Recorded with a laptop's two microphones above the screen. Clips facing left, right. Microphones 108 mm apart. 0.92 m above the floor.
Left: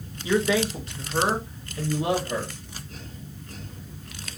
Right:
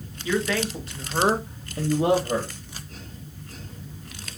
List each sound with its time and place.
0.2 s a man speaking: 20° left (ahead or behind), 0.9 m; by 2.5 s 45° right (ahead or behind), 1.4 m